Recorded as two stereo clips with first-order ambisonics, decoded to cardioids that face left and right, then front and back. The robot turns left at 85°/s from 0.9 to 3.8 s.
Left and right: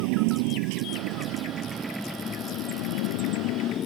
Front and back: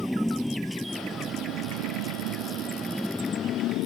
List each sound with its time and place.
0.0 s a motorcycle: 90° right; by 3.9 s 35° left